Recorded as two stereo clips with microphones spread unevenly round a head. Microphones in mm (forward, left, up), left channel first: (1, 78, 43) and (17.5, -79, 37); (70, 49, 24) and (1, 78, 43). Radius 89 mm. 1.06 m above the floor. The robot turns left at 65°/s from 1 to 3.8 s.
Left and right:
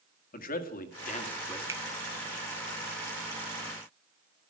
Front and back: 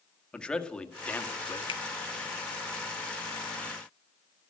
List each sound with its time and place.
0.3 s a man speaking: 55° left, 1.7 m; by 1.6 s 20° left, 1.7 m
1.7 s a finger snap: 10° right, 0.9 m; by 1.8 s 20° right, 0.9 m